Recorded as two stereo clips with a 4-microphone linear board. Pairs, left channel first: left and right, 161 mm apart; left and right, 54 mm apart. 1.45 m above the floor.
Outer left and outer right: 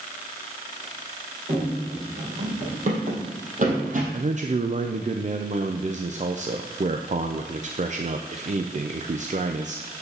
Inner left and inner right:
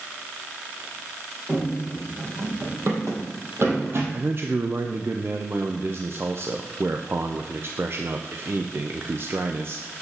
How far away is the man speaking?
About 0.5 m.